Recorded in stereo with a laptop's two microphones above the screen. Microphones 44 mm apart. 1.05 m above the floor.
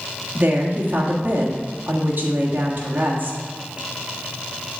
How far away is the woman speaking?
About 1.4 m.